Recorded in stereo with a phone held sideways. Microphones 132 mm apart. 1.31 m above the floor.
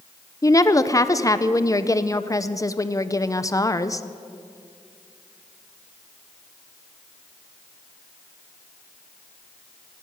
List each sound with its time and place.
0.4 s a woman speaking: 25° left (ahead or behind), 0.6 m